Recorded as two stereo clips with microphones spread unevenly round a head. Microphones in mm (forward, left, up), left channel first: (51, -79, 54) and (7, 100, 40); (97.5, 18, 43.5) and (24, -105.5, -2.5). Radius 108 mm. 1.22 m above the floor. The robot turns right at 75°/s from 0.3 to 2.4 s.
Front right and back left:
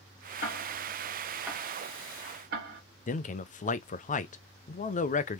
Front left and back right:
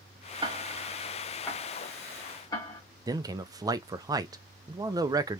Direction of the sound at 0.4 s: 55° right.